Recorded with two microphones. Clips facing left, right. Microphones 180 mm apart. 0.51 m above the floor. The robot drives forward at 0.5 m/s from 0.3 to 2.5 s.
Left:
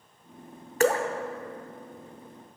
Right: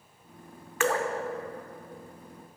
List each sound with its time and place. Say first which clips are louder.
0.8 s dripping: left 4 dB; 40° left (ahead or behind), 0.6 m; by 1.1 s 35° left (ahead or behind), 0.7 m